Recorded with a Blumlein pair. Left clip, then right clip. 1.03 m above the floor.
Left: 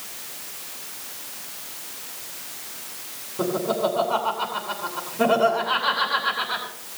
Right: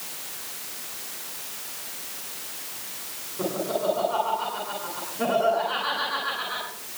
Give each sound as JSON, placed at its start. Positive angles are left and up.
{"t": 3.4, "sound": "laughter", "azimuth_deg": 35, "distance_m": 9.5}